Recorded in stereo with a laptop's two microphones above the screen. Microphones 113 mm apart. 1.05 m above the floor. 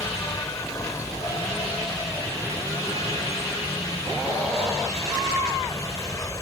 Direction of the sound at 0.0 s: 30° left (ahead or behind).